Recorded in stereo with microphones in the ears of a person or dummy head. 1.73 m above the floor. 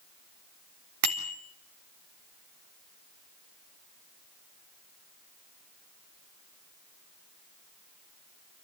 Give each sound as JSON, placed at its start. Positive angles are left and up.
{"t": 1.0, "sound": "a bicycle bell", "side_deg": -55, "distance_m": 3.5}